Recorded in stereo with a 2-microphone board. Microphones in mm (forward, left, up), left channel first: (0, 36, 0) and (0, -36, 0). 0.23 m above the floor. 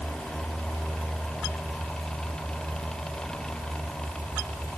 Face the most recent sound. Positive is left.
No sound to turn to.